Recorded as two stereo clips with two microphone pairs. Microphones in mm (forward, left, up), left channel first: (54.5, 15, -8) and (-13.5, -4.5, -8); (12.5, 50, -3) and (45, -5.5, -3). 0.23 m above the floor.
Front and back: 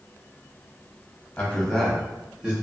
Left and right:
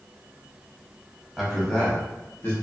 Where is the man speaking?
15° left, 1.0 m; by 2.5 s 130° left, 1.2 m.